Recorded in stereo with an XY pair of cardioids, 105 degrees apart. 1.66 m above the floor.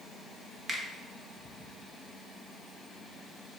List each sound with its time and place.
0.7 s a finger snap: 40° right, 0.7 m